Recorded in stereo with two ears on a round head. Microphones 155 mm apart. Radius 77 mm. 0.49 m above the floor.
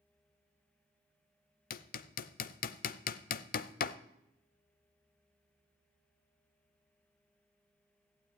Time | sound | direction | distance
1.7 | hammering | 50° left (ahead or behind) | 0.6 m